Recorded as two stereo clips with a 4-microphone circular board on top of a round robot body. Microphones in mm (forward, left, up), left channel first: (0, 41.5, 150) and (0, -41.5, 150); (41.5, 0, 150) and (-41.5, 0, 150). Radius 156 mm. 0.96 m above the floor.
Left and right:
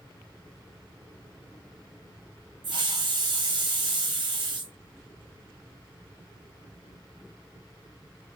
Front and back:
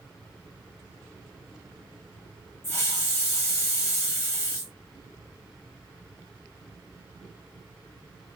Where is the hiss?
65° right, 0.9 m.